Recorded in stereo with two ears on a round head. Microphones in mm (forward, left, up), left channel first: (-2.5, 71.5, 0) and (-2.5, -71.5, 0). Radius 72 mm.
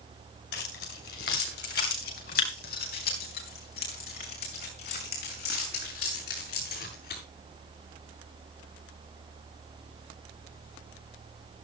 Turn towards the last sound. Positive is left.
turn(degrees=70)  # may be behind; listen again after turning